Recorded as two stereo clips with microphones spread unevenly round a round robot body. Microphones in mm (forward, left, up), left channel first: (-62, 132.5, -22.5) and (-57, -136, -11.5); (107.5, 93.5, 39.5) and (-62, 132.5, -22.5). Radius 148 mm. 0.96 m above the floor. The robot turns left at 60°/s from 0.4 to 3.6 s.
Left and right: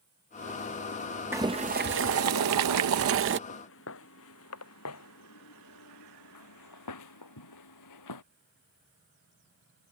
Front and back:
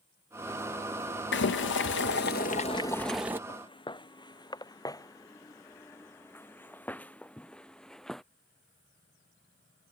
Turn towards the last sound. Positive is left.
turn(degrees=70)